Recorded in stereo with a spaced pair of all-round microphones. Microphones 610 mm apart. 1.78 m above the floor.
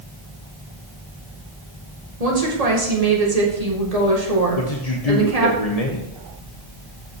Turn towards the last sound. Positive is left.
turn(degrees=75)  # may be behind; listen again after turning